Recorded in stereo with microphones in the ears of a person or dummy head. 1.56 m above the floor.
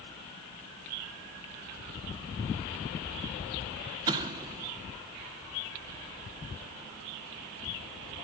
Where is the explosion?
25° right (ahead or behind), 1.5 m.